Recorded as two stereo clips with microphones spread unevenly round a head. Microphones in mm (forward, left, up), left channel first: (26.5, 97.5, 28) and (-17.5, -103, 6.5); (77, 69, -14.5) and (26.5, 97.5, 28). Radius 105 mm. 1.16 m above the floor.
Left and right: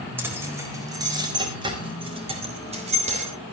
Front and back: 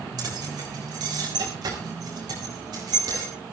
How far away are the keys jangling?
About 4 m.